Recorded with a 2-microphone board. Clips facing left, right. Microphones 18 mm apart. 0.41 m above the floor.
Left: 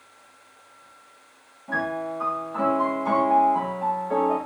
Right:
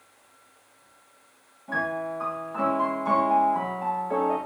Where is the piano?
10° left (ahead or behind), 5.5 m.